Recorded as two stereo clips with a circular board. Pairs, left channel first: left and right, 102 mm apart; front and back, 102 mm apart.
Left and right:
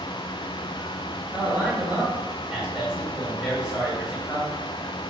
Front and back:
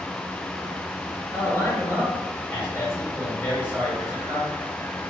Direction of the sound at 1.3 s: 15° right.